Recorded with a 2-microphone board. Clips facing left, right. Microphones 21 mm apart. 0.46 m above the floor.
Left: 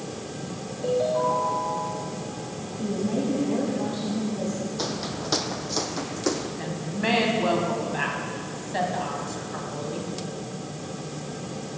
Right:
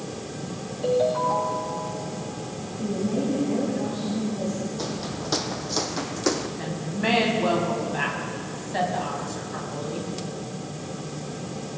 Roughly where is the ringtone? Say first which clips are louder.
Right 1 dB; right.